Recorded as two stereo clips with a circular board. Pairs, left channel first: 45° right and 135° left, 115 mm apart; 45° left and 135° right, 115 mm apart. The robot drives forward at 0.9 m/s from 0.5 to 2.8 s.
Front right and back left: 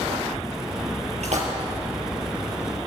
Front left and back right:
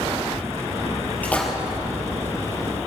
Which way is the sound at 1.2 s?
120° left.